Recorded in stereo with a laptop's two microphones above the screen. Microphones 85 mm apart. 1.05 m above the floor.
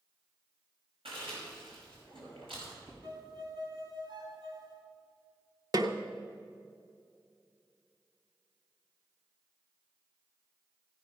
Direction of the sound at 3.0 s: 55° right (ahead or behind).